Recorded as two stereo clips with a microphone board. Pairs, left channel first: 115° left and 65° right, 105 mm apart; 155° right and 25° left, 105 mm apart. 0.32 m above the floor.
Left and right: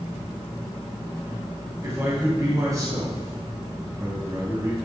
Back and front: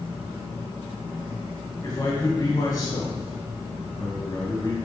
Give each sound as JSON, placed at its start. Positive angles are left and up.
{"t": 1.8, "sound": "a man speaking", "azimuth_deg": -115, "distance_m": 3.0}